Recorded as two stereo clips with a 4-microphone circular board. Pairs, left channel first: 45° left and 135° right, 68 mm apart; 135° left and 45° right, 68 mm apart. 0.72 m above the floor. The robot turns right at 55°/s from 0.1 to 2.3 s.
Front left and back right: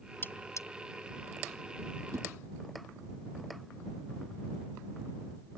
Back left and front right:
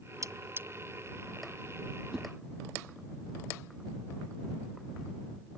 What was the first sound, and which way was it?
Cutlery clinking, 10° right.